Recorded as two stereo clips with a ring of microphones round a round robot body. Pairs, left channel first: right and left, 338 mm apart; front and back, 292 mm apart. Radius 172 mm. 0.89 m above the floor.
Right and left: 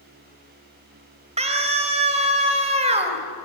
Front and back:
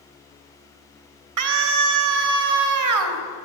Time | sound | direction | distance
1.4 | a scream | 160° left | 4 m